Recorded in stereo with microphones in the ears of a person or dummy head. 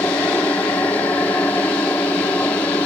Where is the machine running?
5° left (ahead or behind).